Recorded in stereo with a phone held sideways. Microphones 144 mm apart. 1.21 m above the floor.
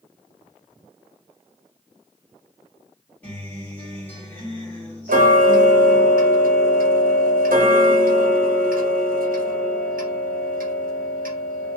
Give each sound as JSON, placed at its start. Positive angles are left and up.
{"t": 3.2, "sound": "a guitar", "side_deg": 10, "distance_m": 1.9}
{"t": 5.1, "sound": "ticking", "side_deg": -75, "distance_m": 0.7}